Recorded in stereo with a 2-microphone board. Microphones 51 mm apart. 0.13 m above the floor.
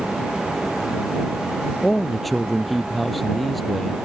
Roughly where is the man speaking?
Centre.